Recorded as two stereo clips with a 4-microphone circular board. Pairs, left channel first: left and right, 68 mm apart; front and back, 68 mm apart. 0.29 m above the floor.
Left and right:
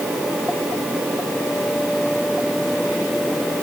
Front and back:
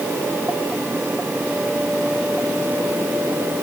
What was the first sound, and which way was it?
Only background noise.